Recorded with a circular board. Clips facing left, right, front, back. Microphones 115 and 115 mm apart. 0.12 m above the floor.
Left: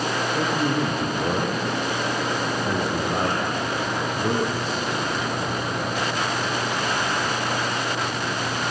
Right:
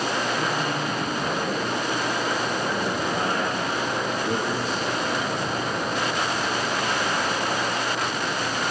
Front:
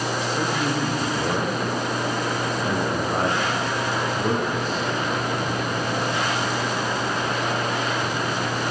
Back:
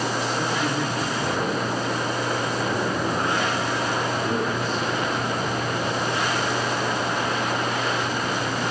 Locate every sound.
0.3 s a man speaking: 65° left, 7.5 m; by 4.8 s 50° left, 8 m